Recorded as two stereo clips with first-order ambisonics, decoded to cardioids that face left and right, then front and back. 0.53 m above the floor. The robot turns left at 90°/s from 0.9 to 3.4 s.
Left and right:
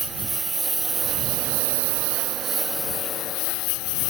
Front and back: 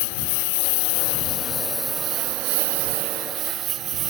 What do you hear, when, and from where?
0.0 s a lawn mower: 10° right; by 4.1 s 125° left